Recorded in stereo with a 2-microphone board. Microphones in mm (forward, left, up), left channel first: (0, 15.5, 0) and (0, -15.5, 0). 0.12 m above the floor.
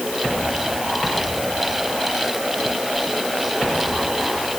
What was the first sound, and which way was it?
Only background noise.